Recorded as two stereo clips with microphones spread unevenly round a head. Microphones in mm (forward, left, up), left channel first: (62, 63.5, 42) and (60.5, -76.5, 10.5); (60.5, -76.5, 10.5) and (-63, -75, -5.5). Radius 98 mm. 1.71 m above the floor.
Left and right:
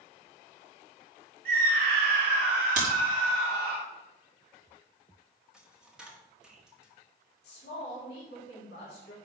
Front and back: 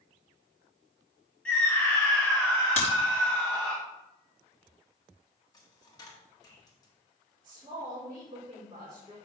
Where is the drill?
No drill in this recording.